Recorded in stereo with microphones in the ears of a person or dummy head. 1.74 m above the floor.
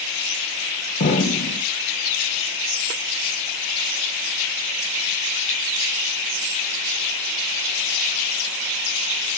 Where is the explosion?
40° left (ahead or behind), 2 m.